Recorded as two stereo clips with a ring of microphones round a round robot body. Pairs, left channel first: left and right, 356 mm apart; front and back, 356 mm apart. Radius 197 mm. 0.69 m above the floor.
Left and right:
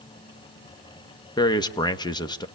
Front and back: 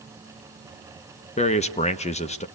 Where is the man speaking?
30° left, 1.1 m.